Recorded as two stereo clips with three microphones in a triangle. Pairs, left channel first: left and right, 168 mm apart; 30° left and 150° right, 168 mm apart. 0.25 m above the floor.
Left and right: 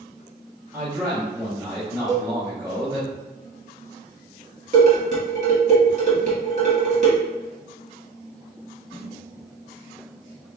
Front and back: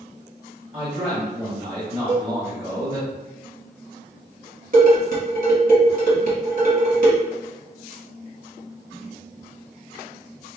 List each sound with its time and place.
0.7 s a man speaking: 145° right, 1.7 m
2.1 s a cowbell: 125° right, 1.4 m
4.7 s dishes clattering: 125° right, 1.6 m